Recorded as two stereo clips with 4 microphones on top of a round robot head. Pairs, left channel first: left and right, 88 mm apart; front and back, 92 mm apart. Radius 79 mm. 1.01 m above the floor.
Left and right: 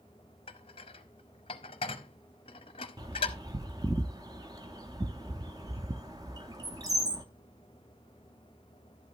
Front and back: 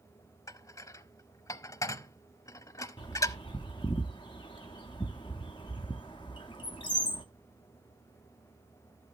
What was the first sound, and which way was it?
Dishes clattering, 50° left.